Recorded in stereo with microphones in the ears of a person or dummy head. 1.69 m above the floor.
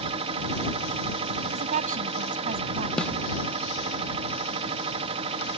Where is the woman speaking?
40° right (ahead or behind).